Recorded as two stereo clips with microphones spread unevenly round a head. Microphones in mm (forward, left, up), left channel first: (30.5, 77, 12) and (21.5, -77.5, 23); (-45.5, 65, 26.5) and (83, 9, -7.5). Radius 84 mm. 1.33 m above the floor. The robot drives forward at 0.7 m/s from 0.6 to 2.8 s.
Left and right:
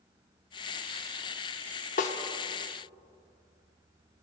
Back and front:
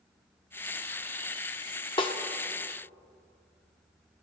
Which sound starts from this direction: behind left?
A snare drum, at 2.0 s.